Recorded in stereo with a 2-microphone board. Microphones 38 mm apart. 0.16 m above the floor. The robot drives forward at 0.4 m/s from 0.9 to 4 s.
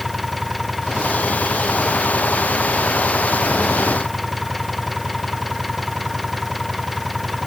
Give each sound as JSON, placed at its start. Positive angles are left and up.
{"t": 0.0, "sound": "an engine running", "side_deg": 0}